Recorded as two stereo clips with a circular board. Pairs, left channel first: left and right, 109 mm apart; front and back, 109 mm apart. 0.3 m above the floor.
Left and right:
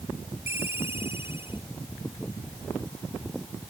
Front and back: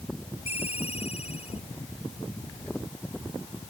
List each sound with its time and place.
0.5 s a ringtone: 20° right